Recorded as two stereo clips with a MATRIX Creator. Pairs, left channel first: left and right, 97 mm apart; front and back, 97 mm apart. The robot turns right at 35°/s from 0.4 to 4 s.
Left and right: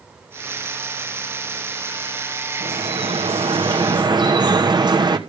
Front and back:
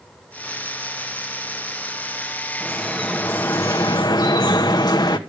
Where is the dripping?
95° right, 1.1 m; by 5.2 s 45° right, 1.1 m.